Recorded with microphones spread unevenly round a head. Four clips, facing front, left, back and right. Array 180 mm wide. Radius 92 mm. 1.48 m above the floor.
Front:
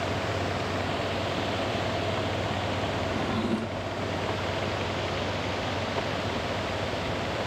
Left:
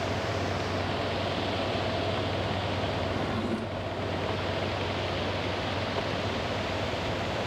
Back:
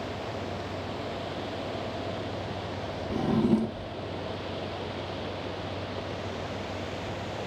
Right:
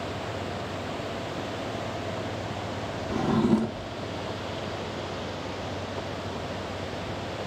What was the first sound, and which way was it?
A drawer, 135° right.